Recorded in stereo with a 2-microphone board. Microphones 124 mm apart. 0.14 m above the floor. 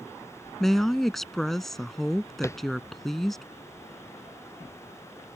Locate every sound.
0.6 s a woman speaking: centre (ahead or behind)
2.4 s tapping: 20° left (ahead or behind)